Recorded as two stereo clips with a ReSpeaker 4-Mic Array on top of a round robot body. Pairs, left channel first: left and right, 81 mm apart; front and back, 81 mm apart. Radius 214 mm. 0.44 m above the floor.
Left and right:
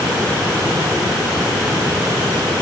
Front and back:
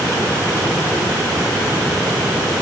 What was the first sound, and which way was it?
Only background noise.